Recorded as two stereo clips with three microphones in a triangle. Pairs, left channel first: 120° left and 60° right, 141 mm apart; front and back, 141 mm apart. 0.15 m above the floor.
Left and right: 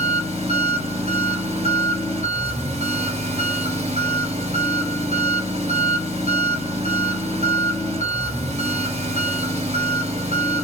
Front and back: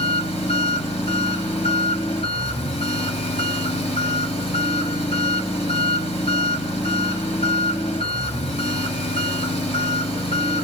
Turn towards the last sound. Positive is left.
turn(degrees=-35)